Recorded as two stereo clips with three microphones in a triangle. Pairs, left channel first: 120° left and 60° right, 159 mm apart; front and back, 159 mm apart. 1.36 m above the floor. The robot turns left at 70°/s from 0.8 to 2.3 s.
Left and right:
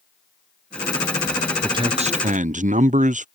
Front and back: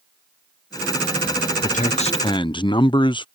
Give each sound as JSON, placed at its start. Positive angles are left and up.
{"t": 1.6, "sound": "a man speaking", "azimuth_deg": 0}